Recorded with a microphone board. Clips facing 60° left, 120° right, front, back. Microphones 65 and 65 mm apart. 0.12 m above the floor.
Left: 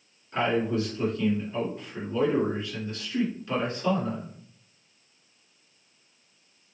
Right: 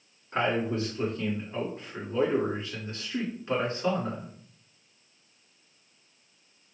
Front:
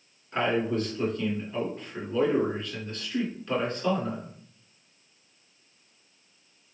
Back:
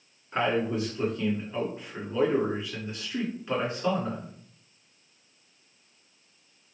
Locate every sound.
0.3 s a man speaking: 120° right, 1.7 m